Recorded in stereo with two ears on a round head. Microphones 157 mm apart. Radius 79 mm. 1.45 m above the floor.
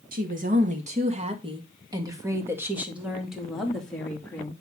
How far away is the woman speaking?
About 2 m.